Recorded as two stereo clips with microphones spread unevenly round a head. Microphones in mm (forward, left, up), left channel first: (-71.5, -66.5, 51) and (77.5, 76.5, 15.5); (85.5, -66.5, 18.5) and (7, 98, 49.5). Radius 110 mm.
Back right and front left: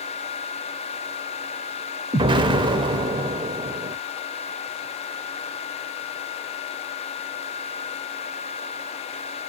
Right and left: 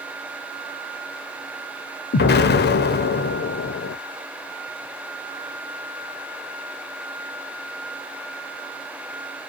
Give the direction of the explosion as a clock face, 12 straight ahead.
1 o'clock.